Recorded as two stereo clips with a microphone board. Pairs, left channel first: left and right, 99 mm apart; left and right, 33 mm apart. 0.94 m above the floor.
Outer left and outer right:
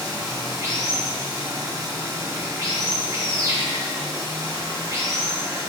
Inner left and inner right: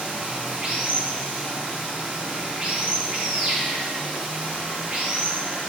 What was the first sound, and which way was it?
Running water, 35° right (ahead or behind).